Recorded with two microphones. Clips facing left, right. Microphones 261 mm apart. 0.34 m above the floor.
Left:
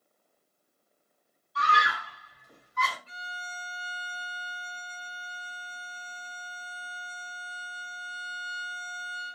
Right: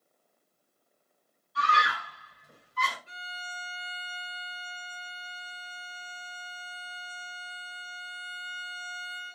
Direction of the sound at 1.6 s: 60° right (ahead or behind).